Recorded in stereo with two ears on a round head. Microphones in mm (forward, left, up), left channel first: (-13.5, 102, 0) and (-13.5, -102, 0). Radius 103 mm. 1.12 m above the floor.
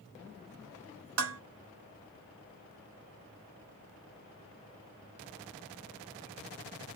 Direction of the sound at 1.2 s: 70° right (ahead or behind).